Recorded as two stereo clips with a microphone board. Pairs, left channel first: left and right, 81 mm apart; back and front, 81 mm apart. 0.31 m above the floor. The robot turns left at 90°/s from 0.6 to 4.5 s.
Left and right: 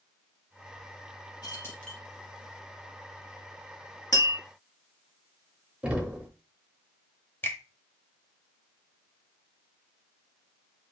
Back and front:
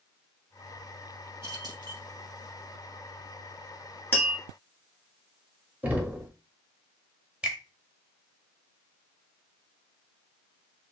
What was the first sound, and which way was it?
Keys jangling, 50° left.